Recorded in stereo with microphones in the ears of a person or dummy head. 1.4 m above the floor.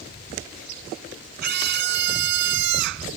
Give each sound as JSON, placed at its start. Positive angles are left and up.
{"t": 1.4, "sound": "a scream", "side_deg": -55}